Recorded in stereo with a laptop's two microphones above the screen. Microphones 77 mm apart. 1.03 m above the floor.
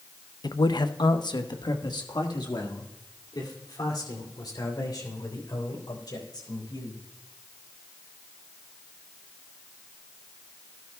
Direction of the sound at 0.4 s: 60° left (ahead or behind).